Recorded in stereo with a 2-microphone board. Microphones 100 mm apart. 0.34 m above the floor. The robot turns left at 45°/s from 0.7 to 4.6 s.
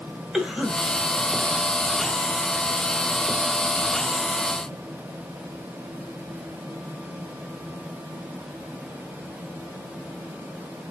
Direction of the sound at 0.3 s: 5° right (ahead or behind).